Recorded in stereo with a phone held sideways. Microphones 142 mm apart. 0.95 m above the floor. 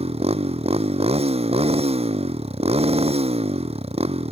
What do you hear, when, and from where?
0.0 s a motorcycle: 45° right (ahead or behind)